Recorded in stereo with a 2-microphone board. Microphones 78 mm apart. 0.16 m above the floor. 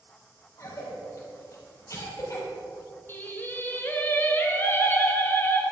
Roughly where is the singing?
Left.